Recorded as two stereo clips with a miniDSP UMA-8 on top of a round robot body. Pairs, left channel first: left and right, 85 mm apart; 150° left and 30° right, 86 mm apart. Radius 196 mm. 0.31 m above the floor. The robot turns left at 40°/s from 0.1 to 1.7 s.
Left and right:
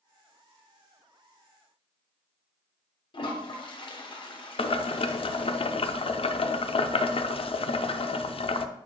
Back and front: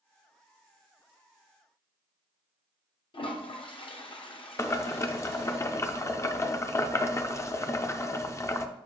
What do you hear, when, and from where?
3.1 s a toilet flushing: 125° left, 0.9 m
4.6 s boiling: 90° left, 0.5 m